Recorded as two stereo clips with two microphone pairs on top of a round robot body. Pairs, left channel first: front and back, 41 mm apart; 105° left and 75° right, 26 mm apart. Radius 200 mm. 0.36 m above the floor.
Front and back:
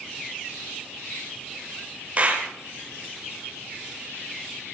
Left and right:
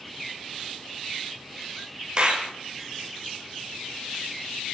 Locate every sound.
2.2 s a clap: 130° right, 2.5 m